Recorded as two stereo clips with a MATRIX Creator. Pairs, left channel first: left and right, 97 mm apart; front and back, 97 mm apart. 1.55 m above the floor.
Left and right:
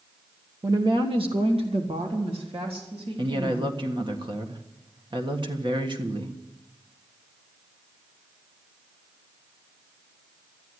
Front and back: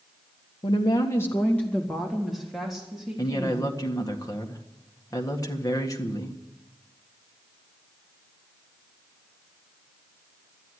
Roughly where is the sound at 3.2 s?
Ahead right.